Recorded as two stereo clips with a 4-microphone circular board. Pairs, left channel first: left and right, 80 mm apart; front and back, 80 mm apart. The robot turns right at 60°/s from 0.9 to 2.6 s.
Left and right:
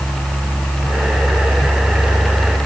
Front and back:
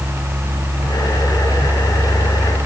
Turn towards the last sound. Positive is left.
No sound to turn to.